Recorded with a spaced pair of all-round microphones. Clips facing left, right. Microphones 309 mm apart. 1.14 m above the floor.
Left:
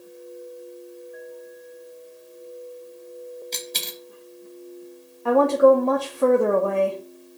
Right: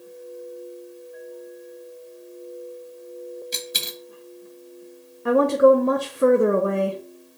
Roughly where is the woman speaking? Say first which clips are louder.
Even; right.